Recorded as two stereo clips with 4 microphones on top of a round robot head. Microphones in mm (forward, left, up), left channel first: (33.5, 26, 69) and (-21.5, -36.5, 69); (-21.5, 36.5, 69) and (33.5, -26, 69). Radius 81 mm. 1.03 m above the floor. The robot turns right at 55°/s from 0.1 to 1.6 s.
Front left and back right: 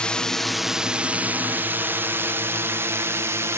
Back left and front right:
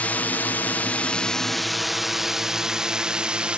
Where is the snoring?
I don't hear snoring.